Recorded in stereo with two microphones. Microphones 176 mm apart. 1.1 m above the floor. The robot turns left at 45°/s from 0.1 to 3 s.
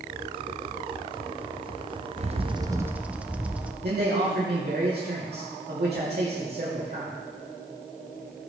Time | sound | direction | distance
2.2 | a bird | 135° right | 0.6 m
3.8 | a man speaking | 60° right (ahead or behind) | 2.5 m